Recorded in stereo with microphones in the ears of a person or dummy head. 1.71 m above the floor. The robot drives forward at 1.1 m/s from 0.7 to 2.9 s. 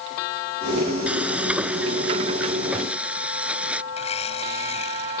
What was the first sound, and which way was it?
Frying, 5° right (ahead or behind).